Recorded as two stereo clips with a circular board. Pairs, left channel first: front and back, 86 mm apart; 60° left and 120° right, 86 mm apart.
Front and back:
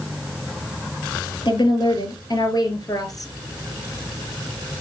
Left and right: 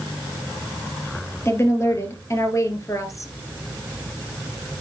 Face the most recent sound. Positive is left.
turn(degrees=25)